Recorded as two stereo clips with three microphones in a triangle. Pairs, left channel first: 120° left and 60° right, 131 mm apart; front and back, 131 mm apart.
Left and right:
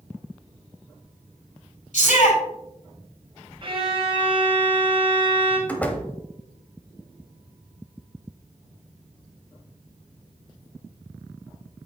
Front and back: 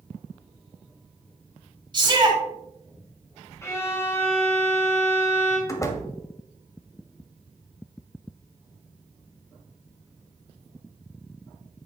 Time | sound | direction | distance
1.9 | a shout | 125° left | 4 m
3.6 | a violin | 55° right | 1.9 m
5.7 | a door slam | 50° left | 1.0 m